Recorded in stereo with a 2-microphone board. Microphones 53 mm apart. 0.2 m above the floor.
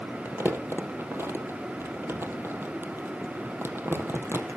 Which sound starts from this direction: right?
Crumpling, at 0.2 s.